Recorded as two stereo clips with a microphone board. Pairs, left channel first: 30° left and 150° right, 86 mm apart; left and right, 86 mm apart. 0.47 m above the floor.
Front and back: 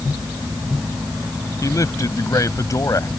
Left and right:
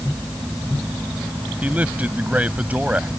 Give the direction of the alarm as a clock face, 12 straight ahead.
I don't hear an alarm.